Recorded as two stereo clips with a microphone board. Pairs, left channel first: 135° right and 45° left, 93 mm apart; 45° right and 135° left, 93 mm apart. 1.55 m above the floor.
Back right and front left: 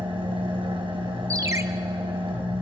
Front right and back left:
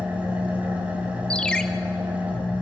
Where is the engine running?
60° left, 4.5 m.